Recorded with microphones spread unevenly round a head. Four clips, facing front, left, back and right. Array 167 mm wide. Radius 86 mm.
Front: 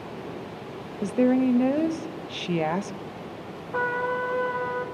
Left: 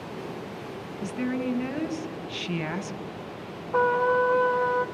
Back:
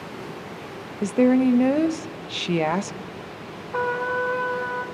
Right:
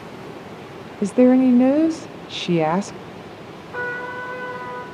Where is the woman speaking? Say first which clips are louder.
Right 15 dB, back 3 dB; 95° right, 0.9 m.